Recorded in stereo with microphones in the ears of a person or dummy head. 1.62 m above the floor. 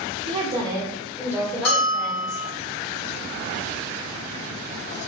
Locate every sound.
0.2 s a woman speaking: 40° right (ahead or behind), 1.0 m; by 2.4 s 25° left (ahead or behind), 1.5 m
1.6 s a bell: 65° left (ahead or behind), 1.8 m